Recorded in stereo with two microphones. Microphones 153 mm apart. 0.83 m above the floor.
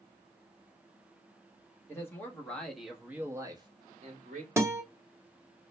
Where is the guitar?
20° right (ahead or behind), 0.6 m.